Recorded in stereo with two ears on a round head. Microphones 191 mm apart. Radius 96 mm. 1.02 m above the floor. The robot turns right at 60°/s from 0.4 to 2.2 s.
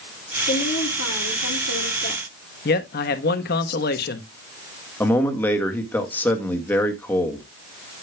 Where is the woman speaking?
35° left, 2.5 m; by 2.2 s 140° left, 2.5 m.